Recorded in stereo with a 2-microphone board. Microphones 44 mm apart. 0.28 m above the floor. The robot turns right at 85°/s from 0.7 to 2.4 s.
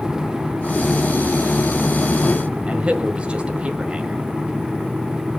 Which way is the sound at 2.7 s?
30° right (ahead or behind).